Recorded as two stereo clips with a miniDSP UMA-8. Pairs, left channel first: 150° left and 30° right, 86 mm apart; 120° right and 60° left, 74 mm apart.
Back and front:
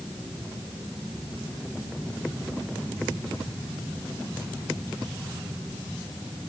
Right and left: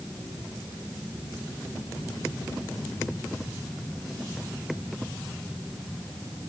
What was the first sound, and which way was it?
Only background noise.